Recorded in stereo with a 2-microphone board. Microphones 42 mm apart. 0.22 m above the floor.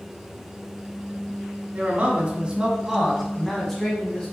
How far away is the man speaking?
About 2.5 m.